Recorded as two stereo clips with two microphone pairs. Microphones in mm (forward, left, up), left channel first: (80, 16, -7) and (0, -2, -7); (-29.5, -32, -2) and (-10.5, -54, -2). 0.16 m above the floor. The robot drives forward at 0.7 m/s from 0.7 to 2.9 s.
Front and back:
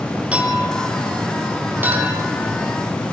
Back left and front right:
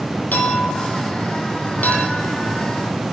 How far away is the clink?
About 4.5 m.